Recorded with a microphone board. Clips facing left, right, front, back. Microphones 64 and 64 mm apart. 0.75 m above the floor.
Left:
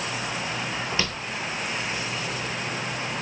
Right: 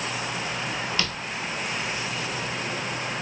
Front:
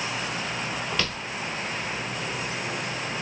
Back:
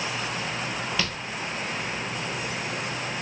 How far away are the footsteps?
About 0.7 m.